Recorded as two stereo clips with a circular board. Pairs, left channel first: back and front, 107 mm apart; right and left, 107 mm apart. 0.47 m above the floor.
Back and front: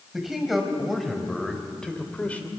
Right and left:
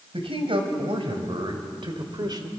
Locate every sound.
0.1 s a man speaking: 85° left, 3.5 m; by 2.5 s 110° left, 1.9 m